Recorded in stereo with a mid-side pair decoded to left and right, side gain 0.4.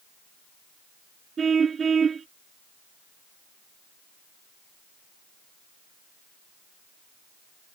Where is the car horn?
45° right.